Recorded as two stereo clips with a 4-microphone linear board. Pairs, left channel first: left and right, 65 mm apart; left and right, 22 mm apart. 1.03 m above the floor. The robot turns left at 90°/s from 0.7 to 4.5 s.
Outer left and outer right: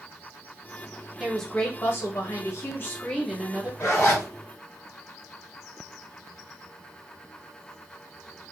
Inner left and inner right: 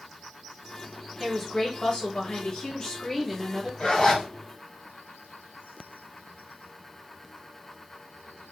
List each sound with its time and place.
1.2 s a woman speaking: 170° right, 1.0 m; by 3.7 s 35° right, 1.0 m
3.8 s a zipper: 65° left, 1.3 m; by 4.2 s 25° left, 1.3 m